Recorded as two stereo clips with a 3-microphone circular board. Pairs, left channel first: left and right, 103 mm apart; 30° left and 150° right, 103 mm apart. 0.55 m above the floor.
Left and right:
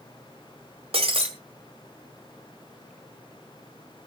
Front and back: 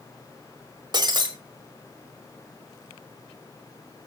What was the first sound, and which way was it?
Breaking glass, 105° right.